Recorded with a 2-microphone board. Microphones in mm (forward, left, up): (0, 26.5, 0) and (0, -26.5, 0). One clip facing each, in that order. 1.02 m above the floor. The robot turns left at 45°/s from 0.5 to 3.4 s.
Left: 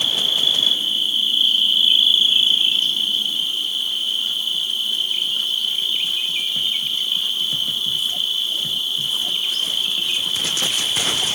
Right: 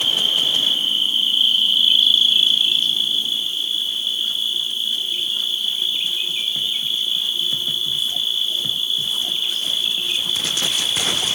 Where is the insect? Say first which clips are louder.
Right 1 dB; 125° right, 1.5 m; by 11.4 s 105° left, 1.5 m.